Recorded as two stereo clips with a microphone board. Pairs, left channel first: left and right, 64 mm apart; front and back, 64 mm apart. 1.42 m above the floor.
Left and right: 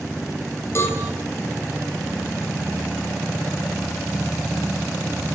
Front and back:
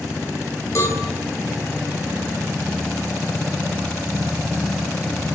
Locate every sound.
0.8 s a cowbell: 40° left, 5 m